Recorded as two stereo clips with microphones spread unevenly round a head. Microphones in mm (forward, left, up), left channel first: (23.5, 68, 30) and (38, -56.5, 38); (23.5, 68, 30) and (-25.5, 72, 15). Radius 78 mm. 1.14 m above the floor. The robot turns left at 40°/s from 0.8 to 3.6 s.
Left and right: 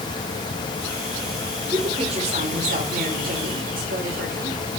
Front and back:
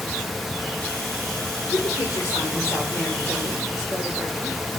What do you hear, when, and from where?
1.7 s a woman speaking: 25° right, 4 m; by 4.6 s 100° right, 4 m